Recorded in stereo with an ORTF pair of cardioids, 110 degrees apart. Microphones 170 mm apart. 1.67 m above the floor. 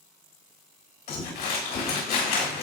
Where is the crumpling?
65° left, 3 m.